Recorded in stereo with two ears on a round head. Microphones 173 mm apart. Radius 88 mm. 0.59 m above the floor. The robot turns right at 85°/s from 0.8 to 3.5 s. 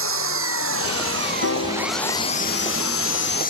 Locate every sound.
0.0 s an engine running: 95° right; by 3.5 s 135° left
1.4 s a piano: 95° left; by 3.3 s 105° right